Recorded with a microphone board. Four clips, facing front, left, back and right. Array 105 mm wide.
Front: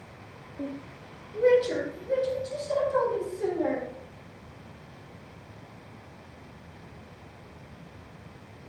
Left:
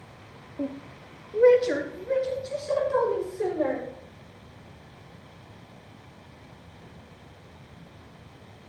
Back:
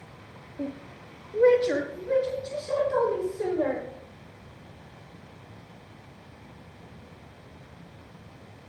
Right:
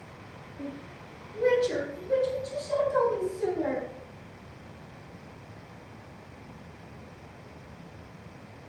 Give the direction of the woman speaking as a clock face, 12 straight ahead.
9 o'clock.